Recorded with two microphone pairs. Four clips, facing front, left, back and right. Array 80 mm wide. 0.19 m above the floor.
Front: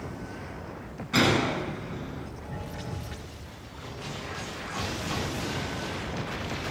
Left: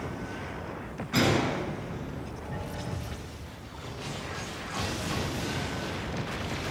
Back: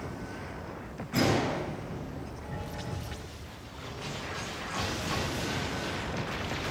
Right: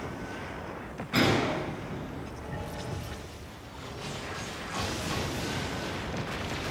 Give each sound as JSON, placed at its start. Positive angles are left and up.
{"t": 1.1, "sound": "a gunshot", "azimuth_deg": -5, "distance_m": 2.5}